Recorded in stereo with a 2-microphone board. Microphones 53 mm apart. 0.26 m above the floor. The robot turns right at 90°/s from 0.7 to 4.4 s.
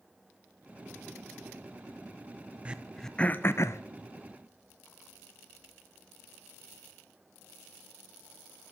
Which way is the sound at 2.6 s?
25° right (ahead or behind).